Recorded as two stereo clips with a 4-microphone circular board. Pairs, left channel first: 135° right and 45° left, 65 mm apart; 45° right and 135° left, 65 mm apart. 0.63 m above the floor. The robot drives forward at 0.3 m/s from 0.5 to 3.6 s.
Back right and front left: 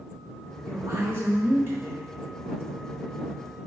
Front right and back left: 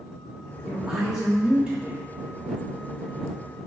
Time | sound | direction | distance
0.7 | a woman speaking | 50° left | 1.4 m